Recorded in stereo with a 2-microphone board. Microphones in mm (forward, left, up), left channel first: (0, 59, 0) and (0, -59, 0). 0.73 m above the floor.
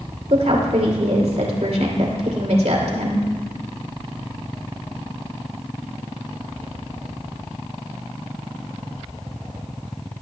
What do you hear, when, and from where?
0.3 s a woman speaking: 70° right (ahead or behind), 2.5 m